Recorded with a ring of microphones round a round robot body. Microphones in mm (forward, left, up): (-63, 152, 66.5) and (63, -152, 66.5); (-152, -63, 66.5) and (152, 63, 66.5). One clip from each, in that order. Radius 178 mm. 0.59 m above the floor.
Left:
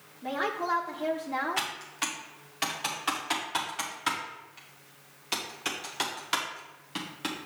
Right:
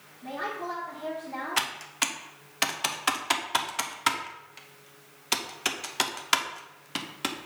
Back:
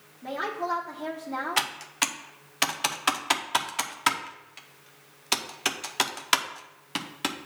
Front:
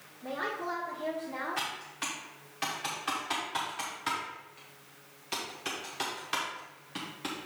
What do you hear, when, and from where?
0.2 s a woman speaking: 155° left, 1.1 m
1.6 s typing on a keyboard: 130° right, 0.7 m